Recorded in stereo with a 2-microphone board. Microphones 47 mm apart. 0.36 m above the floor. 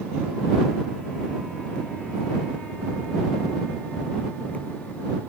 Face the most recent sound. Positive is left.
No sound to turn to.